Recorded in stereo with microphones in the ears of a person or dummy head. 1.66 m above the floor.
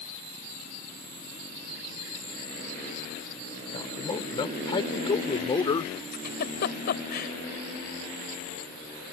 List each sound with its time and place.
3.7 s a man speaking: 25° left (ahead or behind)
6.1 s a giggle: 50° left (ahead or behind)